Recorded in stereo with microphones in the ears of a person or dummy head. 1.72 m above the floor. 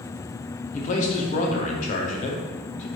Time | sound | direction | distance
0.7 | a man speaking | 35° left (ahead or behind) | 0.6 m